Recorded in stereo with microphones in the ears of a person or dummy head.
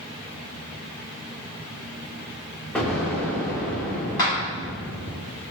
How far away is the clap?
About 1.8 m.